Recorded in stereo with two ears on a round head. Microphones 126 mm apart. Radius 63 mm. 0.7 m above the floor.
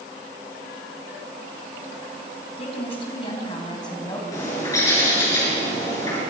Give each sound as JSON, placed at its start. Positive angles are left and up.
{"t": 2.6, "sound": "a woman speaking", "side_deg": 40, "distance_m": 4.5}
{"t": 4.3, "sound": "a bird", "side_deg": 20, "distance_m": 7.5}